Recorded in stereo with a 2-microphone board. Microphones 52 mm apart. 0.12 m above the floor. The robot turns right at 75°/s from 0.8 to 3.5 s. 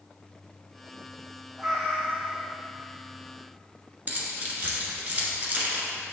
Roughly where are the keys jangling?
Right.